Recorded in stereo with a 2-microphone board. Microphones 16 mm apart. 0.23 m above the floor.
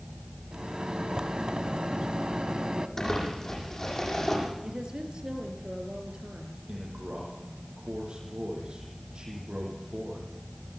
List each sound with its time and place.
0.5 s a microwave: 50° right (ahead or behind), 1.0 m
3.0 s crumpling: 25° left (ahead or behind), 8.5 m
4.6 s a woman speaking: 50° right (ahead or behind), 4 m
6.7 s a man speaking: 70° right (ahead or behind), 8 m